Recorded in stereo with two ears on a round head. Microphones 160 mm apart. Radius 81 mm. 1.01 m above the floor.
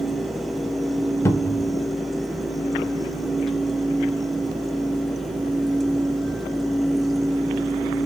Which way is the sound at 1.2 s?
15° left (ahead or behind).